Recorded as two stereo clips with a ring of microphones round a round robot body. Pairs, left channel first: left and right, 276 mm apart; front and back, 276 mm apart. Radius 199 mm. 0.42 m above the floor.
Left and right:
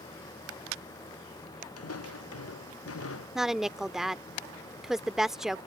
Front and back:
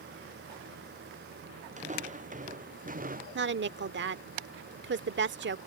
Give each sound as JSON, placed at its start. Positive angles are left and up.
{"t": 1.8, "sound": "footsteps", "azimuth_deg": 115}
{"t": 3.4, "sound": "a woman speaking", "azimuth_deg": 180}